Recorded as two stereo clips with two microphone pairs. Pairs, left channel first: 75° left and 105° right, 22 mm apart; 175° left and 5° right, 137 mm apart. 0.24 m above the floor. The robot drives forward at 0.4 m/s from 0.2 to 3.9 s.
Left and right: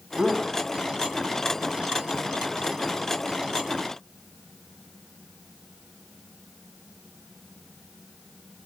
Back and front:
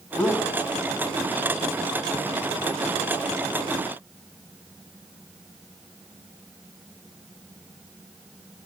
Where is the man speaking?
90° left, 2 m; by 0.6 s 95° left, 2 m.